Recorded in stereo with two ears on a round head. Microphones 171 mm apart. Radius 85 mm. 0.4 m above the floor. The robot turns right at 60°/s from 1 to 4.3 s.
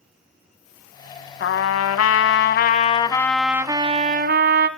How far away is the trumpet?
About 0.8 m.